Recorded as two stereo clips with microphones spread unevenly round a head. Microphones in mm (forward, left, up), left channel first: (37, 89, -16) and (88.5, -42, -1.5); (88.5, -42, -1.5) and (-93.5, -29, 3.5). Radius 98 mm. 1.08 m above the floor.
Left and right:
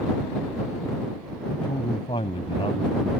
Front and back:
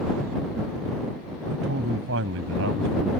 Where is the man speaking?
Straight behind.